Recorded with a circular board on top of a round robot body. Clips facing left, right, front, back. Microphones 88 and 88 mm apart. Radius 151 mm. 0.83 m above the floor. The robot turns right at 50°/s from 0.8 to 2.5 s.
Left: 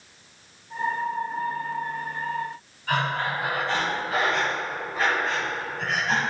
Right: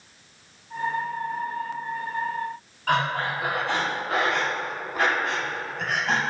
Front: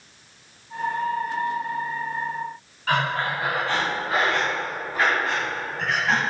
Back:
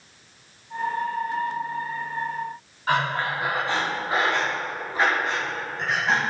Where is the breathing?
110° right, 1.9 m.